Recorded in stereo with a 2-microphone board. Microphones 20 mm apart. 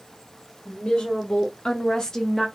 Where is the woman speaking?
60° left (ahead or behind), 1.1 m; by 2.5 s 5° left (ahead or behind), 0.5 m.